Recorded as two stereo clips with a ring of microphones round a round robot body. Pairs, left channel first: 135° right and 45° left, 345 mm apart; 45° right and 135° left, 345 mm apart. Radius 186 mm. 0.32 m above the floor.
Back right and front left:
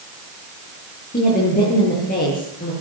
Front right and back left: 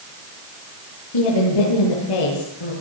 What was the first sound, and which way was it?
A woman speaking, 65° right.